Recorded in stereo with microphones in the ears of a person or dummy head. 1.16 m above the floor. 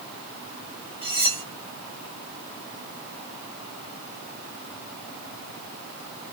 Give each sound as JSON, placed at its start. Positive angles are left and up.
{"t": 1.0, "sound": "cutlery clinking", "side_deg": 30, "distance_m": 2.0}